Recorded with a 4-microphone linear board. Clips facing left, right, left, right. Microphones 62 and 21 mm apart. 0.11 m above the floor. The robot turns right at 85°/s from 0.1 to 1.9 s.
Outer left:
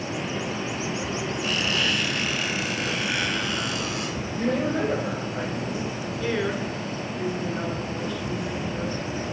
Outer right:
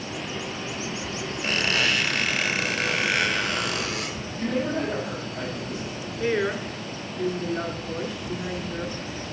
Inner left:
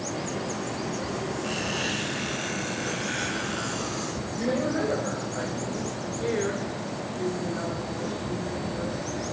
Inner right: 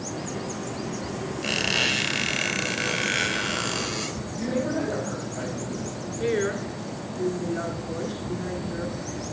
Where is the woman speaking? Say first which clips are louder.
Outer right 2 dB, inner right 3 dB; 20° right (ahead or behind), 1.6 m.